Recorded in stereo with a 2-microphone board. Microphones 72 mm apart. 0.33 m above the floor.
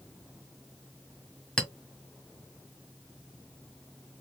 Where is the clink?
10° left (ahead or behind), 0.9 m.